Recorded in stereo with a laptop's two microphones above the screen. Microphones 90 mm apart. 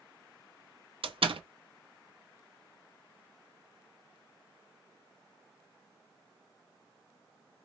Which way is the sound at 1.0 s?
85° right.